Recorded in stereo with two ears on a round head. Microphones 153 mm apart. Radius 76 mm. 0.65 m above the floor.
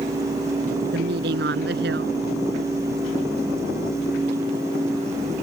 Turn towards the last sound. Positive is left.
turn(degrees=-65)  # may be behind; listen again after turning